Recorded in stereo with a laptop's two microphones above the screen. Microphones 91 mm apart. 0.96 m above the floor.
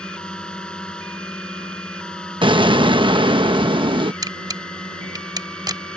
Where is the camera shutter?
50° right (ahead or behind).